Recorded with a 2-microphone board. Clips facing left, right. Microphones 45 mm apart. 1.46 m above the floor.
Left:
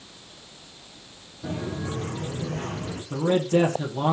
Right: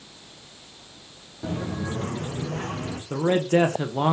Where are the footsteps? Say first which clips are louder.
Right 1 dB; 50° right (ahead or behind), 2.5 m; by 3.0 s 65° right (ahead or behind), 4 m.